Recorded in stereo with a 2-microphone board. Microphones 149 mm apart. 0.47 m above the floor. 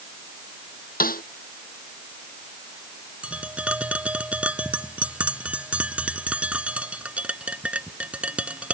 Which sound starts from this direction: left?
A snare drum, at 1.0 s.